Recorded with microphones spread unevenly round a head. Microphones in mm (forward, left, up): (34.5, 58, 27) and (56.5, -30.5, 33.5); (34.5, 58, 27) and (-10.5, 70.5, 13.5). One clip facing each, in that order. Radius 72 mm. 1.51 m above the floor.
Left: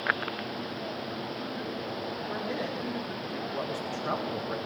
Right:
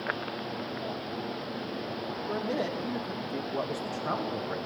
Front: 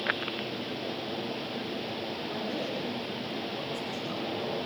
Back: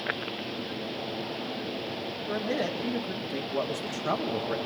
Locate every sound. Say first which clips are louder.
2.3 s a man speaking: right 4 dB, back 7 dB; 140° right, 2.5 m; by 4.6 s 170° right, 1.8 m